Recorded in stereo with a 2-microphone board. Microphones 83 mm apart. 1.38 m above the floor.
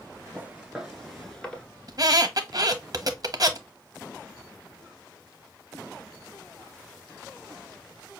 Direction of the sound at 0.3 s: 20° right (ahead or behind).